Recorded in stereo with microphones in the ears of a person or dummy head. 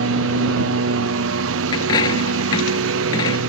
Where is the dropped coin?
25° left (ahead or behind).